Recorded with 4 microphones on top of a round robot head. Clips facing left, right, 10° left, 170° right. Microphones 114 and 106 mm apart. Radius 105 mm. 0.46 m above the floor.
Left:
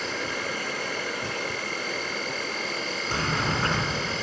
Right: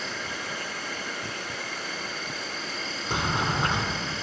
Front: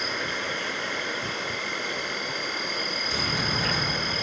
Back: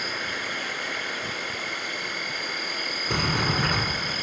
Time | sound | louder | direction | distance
0.0 | an insect | left 4 dB, front 2 dB | 70° left | 3.5 m
3.1 | a sliding door | right 1 dB, back 5 dB | 160° right | 1.9 m